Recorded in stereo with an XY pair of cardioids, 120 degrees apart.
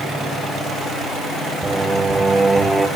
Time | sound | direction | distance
1.6 | singing | 15° right | 0.9 m